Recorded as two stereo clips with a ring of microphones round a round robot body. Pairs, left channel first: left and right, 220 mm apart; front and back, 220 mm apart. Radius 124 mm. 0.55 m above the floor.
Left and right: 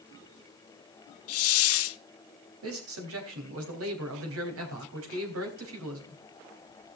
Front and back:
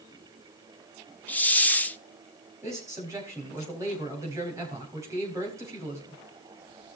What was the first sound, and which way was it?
A hiss, 85° left.